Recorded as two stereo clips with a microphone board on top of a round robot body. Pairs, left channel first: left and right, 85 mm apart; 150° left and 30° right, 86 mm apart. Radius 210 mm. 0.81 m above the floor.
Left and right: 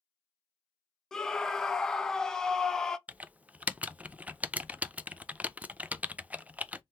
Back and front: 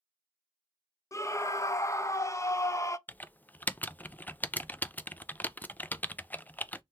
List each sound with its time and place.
1.1 s a scream: 170° left, 0.7 m
3.1 s typing on a keyboard: 155° right, 0.6 m